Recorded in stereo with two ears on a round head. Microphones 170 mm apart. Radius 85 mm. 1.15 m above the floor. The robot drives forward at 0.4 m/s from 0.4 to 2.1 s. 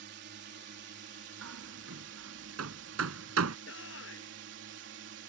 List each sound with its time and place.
0.0 s a drone: 60° right (ahead or behind); by 5.3 s 65° right (ahead or behind)
1.4 s hammering: 85° right
3.7 s a shout: 75° left (ahead or behind)